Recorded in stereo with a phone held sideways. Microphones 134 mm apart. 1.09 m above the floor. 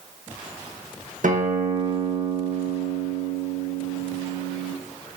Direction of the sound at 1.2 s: 70° right (ahead or behind).